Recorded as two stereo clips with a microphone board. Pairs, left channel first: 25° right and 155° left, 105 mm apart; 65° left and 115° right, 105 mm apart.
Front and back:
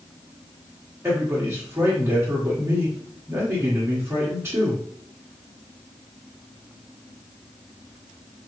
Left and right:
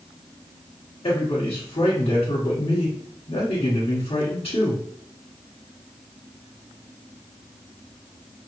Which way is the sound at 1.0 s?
85° left.